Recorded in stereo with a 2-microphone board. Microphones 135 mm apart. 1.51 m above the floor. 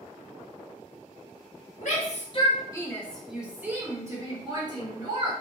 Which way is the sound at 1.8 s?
65° left (ahead or behind).